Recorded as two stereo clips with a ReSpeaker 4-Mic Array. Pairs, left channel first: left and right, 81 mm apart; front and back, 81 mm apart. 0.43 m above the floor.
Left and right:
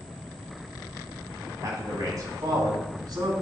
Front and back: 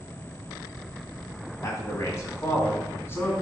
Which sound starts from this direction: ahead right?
A man speaking, at 1.6 s.